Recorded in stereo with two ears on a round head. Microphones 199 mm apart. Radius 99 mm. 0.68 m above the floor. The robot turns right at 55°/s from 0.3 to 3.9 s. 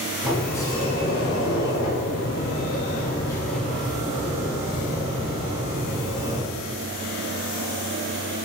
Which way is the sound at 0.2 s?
Straight ahead.